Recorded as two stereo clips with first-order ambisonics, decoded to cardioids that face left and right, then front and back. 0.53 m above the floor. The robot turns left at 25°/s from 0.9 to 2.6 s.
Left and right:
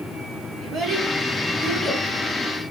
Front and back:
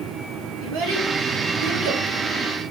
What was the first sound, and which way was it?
A child speaking, 155° right.